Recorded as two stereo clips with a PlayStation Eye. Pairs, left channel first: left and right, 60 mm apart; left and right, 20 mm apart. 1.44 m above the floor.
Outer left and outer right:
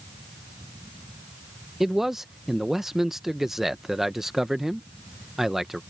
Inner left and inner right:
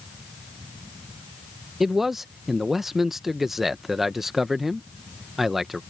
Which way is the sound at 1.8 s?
5° right (ahead or behind).